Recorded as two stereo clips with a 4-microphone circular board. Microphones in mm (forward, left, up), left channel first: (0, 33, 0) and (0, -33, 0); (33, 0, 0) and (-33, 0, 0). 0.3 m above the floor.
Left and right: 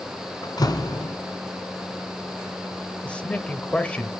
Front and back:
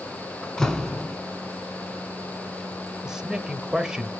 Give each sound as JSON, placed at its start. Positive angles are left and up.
{"t": 0.4, "sound": "a door slam", "azimuth_deg": 80, "distance_m": 1.8}
{"t": 3.0, "sound": "a man speaking", "azimuth_deg": 115, "distance_m": 1.2}